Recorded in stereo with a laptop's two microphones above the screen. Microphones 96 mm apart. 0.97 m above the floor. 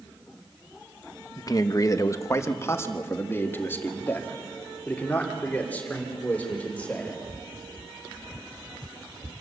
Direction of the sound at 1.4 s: 40° left (ahead or behind).